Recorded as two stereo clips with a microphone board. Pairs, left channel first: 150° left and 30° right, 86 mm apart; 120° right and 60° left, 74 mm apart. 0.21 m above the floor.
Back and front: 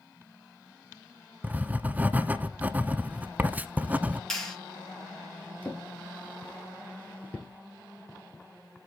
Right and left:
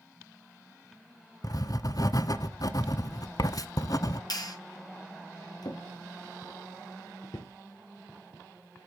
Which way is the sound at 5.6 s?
140° right.